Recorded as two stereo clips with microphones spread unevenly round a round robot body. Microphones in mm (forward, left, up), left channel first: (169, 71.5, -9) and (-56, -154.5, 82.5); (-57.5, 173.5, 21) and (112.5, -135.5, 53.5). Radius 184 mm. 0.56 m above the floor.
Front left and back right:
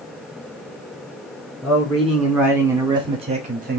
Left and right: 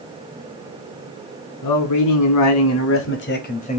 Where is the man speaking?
125° left, 1.9 m; by 3.8 s 165° left, 1.1 m.